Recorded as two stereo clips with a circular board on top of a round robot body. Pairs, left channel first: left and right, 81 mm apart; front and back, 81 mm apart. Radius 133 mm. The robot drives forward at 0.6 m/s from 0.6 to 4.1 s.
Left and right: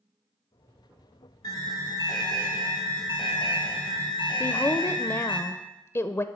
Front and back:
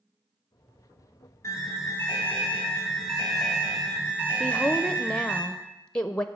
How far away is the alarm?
About 2 m.